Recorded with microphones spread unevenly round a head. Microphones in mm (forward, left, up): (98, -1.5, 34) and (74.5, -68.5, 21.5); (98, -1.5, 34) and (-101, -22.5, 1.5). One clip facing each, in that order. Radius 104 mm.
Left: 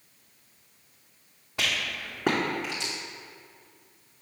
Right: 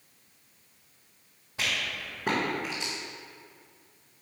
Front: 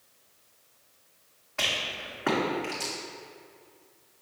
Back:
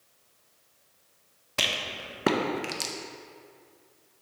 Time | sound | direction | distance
1.6 | a rattle | 140° left | 0.6 m